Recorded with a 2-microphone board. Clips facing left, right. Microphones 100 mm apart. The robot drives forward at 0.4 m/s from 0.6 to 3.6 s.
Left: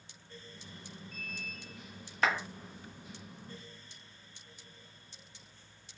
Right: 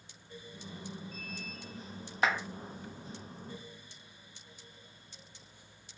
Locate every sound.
2.2 s a clap: 15° right (ahead or behind), 1.3 m